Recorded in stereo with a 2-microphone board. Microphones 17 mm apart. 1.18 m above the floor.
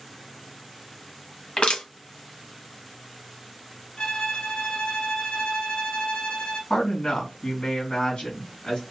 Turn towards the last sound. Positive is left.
turn(degrees=65)  # may be behind; listen again after turning